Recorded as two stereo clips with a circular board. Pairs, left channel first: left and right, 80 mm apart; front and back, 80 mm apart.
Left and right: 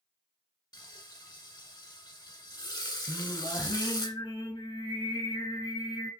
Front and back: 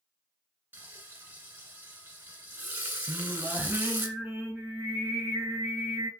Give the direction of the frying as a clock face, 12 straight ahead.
8 o'clock.